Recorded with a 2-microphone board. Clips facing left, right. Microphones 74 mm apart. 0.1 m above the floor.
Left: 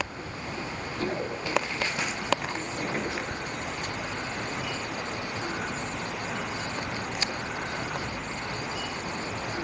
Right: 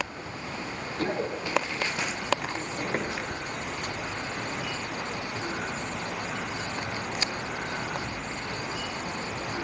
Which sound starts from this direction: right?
Running footsteps, at 1.0 s.